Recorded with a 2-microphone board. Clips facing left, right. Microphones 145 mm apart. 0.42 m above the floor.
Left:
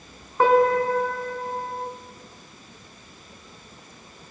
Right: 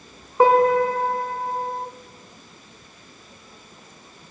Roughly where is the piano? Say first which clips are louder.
Right 2 dB; centre.